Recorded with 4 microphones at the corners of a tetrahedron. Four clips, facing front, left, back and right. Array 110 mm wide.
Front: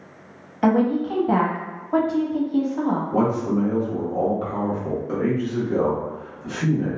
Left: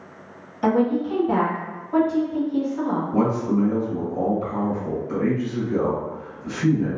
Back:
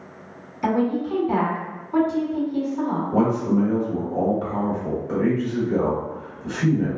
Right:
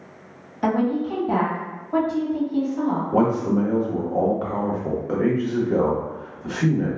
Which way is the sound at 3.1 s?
85° right.